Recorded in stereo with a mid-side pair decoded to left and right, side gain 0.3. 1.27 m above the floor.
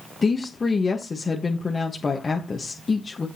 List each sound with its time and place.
0.2 s a woman speaking: 50° left, 1.3 m